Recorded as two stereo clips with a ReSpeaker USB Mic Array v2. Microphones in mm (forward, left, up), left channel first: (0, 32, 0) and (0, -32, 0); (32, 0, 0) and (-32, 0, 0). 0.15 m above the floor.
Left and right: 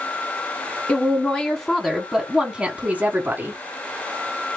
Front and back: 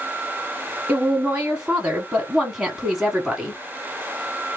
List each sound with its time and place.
0.9 s a woman speaking: 130° left, 1.3 m; by 3.6 s 95° right, 1.4 m